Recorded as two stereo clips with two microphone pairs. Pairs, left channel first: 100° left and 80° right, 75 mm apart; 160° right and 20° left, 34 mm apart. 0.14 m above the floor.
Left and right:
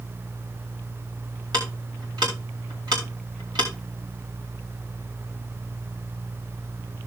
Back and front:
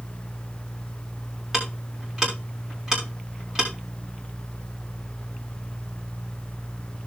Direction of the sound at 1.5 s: 60° right.